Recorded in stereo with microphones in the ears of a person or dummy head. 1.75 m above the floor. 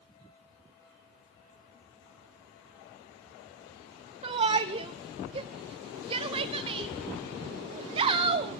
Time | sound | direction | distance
4.2 | a shout | 35° right (ahead or behind) | 0.6 m